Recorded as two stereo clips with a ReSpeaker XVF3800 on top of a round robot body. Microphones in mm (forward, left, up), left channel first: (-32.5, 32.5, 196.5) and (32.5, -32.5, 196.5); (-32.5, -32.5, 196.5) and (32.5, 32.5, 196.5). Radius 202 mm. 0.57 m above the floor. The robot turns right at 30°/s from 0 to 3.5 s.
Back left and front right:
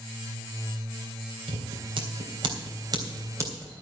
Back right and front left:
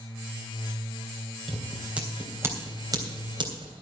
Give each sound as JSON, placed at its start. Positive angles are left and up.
{"t": 1.5, "sound": "scissors", "azimuth_deg": -45, "distance_m": 3.5}